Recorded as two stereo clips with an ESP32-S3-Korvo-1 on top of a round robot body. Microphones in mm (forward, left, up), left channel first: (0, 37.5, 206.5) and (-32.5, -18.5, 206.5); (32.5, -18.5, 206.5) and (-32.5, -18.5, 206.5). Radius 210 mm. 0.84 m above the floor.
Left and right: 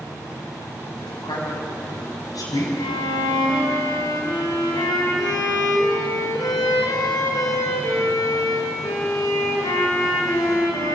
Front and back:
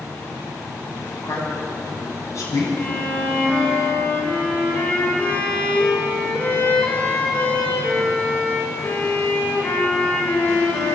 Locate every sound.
1.0 s a man speaking: 50° left, 7.5 m; by 2.7 s 40° left, 8 m
2.8 s a violin: 70° left, 5 m